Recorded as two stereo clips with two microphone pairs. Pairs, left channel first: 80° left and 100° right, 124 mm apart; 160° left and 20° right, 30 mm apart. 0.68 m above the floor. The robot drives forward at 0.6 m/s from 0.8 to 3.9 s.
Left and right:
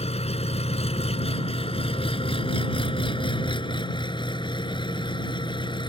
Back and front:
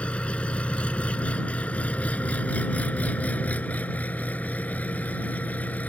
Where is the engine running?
115° left; by 5.9 s 130° left.